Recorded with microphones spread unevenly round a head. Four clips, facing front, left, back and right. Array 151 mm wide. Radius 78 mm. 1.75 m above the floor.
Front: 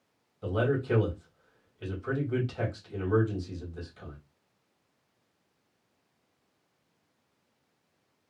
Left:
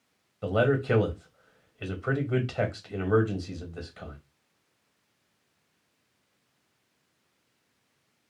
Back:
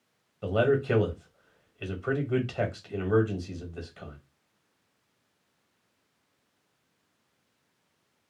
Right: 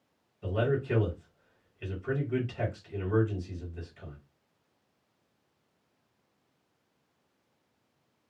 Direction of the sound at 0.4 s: 120° left.